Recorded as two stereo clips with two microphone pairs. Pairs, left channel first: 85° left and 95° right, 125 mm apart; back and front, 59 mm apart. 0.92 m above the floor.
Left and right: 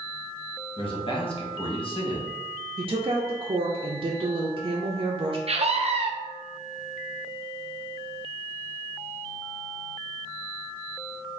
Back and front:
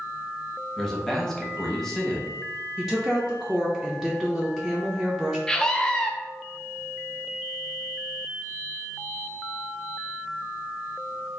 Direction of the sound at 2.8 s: 90° right.